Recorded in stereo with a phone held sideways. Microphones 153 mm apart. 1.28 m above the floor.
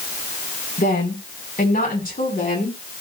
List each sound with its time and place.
0.8 s a woman speaking: 75° left (ahead or behind), 4.5 m; by 2.8 s 65° left (ahead or behind), 5 m